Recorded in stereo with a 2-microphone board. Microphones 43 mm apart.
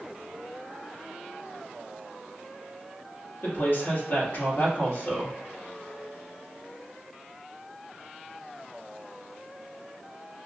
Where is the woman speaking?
55° left (ahead or behind), 1.5 m.